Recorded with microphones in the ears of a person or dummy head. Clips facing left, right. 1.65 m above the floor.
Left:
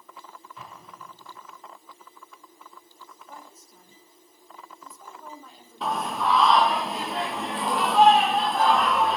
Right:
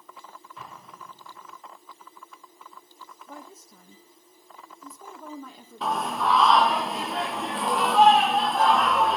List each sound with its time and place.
0.6 s an explosion: 5° left (ahead or behind), 5 m
3.3 s a woman speaking: 70° right (ahead or behind), 1.5 m
5.8 s singing: centre (ahead or behind), 1.0 m